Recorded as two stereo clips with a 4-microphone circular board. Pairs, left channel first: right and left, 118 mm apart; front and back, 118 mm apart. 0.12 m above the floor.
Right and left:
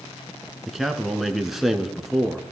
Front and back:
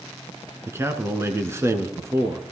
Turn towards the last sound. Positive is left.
turn(degrees=175)